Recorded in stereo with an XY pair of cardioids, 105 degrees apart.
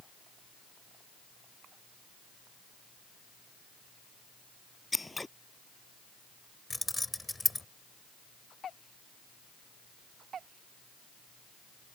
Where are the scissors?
15° left.